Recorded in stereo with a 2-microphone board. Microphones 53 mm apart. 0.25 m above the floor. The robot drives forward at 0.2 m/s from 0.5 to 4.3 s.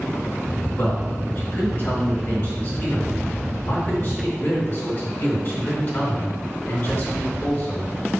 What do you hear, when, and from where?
0.8 s a man speaking: 55° left (ahead or behind), 2.5 m; by 7.9 s 45° left (ahead or behind), 2.5 m